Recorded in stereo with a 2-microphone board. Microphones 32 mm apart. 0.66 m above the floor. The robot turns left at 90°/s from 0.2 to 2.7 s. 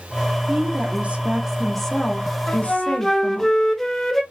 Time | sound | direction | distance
0.5 | a woman speaking | 65° right | 1.0 m
2.5 | a flute | 15° left (ahead or behind) | 0.9 m